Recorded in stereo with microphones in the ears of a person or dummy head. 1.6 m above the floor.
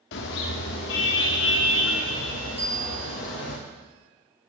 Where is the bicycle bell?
35° right (ahead or behind), 3.5 m.